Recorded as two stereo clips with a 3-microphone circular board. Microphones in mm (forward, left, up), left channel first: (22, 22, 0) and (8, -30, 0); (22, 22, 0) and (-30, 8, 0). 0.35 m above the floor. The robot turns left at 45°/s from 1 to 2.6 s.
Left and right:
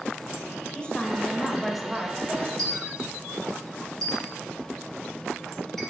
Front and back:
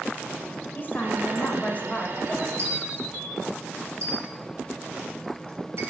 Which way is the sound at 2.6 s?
160° left.